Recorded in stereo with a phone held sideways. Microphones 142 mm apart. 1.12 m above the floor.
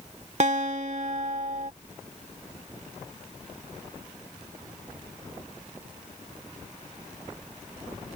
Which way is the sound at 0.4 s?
55° right (ahead or behind).